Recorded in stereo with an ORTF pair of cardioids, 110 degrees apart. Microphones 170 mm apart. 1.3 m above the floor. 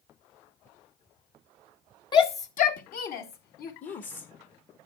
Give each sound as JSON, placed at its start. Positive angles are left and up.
{"t": 2.1, "sound": "a shout", "azimuth_deg": 25, "distance_m": 0.6}
{"t": 3.8, "sound": "a woman speaking", "azimuth_deg": 45, "distance_m": 1.1}